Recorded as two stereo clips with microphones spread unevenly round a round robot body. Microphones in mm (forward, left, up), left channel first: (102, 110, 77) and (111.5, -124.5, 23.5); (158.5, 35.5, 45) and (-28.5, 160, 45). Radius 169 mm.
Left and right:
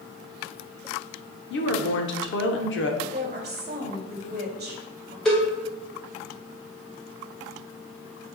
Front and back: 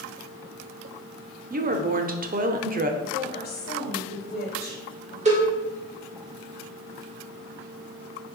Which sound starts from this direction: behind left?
A woman speaking, at 1.5 s.